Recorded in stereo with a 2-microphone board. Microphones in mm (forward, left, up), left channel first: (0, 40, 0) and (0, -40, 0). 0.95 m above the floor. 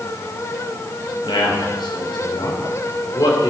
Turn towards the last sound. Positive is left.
turn(degrees=60)  # may be behind; listen again after turning